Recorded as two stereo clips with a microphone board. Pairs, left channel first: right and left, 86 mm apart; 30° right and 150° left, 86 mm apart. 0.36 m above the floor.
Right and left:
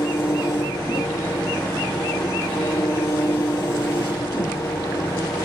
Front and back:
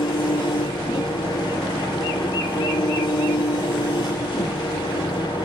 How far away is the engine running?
About 4 m.